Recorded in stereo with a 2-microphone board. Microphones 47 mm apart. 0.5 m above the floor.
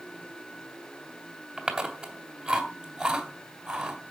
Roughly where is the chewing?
Centre.